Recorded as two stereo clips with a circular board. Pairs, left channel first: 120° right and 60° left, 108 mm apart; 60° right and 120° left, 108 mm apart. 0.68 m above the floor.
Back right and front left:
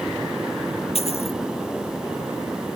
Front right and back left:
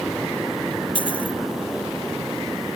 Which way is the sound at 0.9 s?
100° right.